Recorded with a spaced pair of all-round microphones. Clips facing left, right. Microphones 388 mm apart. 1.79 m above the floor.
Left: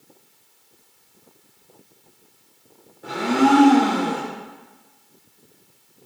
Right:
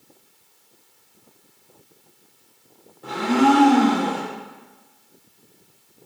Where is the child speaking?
No child speaking in this recording.